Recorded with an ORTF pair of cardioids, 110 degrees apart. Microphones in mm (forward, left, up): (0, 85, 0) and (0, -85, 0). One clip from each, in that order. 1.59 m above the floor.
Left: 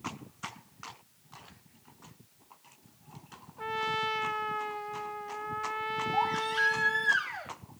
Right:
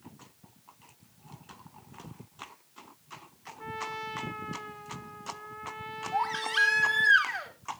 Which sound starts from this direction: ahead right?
A baby crying, at 6.1 s.